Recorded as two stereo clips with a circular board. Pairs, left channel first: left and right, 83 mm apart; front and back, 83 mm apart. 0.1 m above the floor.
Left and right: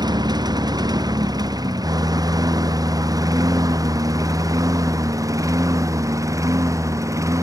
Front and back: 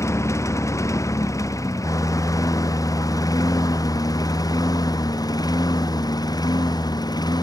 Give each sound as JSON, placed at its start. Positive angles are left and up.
{"t": 0.0, "sound": "a lawn mower", "azimuth_deg": -55}